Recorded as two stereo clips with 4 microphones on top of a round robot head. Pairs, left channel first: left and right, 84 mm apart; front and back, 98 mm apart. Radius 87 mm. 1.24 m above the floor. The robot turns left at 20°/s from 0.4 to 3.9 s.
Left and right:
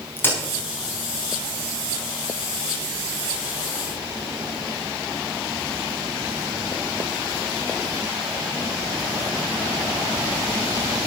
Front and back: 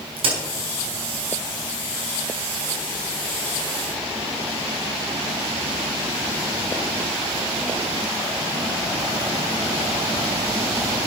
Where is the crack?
155° left, 5 m.